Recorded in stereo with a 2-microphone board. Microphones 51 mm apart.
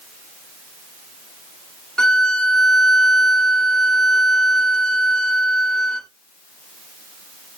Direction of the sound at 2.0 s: 5° left (ahead or behind).